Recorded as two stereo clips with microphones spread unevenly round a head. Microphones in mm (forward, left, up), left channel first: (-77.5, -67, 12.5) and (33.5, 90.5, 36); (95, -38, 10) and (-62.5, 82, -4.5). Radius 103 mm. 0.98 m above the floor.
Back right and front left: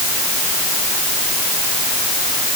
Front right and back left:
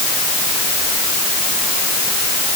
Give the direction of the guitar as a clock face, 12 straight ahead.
No guitar in this recording.